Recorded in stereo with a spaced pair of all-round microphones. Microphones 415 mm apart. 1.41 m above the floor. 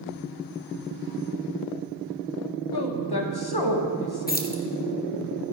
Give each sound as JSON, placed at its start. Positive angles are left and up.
{"t": 2.7, "sound": "a woman speaking", "side_deg": 65, "distance_m": 1.3}
{"t": 4.3, "sound": "keys jangling", "side_deg": 20, "distance_m": 0.8}